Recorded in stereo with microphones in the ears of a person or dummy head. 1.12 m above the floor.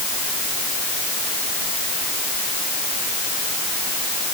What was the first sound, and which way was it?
Only background noise.